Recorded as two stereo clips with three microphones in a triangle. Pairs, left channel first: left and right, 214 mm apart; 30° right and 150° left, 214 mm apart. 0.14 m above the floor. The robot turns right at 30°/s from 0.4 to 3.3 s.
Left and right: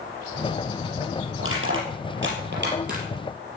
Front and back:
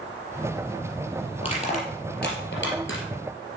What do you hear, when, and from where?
1.4 s crushing: 95° right, 4.5 m; by 3.0 s 45° right, 4.5 m